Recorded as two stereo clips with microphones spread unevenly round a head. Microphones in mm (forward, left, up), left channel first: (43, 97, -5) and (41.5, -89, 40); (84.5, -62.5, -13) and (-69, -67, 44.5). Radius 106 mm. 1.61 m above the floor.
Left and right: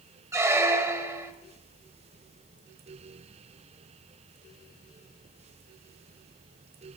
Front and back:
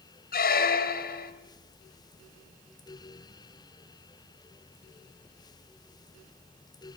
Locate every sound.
0.3 s a squeak: 30° right, 2 m